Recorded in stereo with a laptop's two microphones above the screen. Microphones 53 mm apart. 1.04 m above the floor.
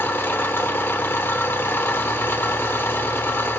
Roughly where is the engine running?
Left.